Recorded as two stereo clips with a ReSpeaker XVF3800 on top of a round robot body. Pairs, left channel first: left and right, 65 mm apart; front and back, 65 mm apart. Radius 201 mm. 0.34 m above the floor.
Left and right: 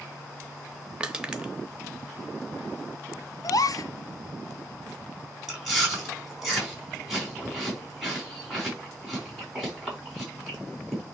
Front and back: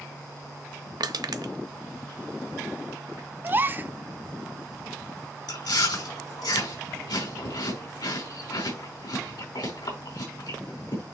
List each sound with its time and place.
1.0 s crushing: 165° right, 0.9 m
3.4 s a gasp: 120° left, 0.5 m
5.5 s chewing: 5° right, 4.5 m